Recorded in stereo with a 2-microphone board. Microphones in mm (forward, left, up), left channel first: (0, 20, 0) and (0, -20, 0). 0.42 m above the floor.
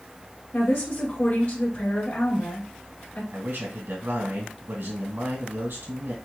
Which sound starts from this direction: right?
A man speaking, at 3.3 s.